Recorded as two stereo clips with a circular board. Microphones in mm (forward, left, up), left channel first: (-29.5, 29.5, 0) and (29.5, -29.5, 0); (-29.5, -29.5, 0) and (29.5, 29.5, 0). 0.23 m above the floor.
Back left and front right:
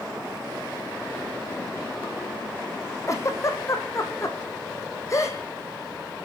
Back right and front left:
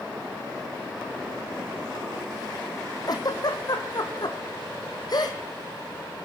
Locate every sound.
3.1 s a giggle: 170° right, 1.9 m